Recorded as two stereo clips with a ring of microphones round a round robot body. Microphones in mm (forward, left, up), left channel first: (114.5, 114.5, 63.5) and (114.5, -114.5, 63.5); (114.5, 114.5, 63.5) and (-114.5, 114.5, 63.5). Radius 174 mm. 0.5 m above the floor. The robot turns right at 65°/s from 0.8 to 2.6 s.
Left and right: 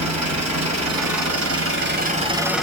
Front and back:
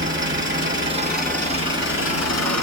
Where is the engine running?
120° right, 1.9 m; by 2.6 s straight ahead, 1.9 m.